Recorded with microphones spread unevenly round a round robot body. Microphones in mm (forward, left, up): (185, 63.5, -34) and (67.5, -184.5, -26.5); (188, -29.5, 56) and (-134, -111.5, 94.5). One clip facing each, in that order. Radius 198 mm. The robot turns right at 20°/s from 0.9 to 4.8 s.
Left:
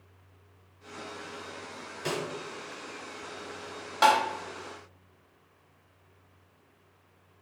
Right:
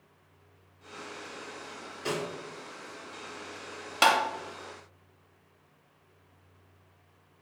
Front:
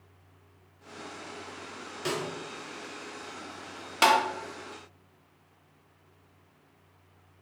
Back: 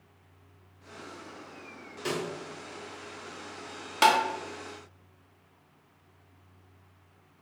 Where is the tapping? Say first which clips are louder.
Left 2 dB, even; 70° right, 0.7 m; by 4.2 s 65° right, 0.7 m.